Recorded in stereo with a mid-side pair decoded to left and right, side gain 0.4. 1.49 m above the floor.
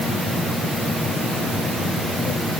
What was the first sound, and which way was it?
Only background noise.